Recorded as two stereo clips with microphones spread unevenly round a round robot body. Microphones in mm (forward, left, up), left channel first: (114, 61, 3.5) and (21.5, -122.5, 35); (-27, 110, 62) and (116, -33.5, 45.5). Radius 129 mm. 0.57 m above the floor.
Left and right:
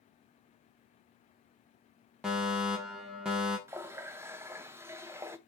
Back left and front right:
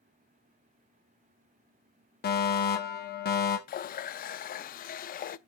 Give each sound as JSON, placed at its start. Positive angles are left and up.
{"t": 2.2, "sound": "a fire alarm", "azimuth_deg": 150, "distance_m": 2.0}
{"t": 3.7, "sound": "a running tap", "azimuth_deg": 160, "distance_m": 0.5}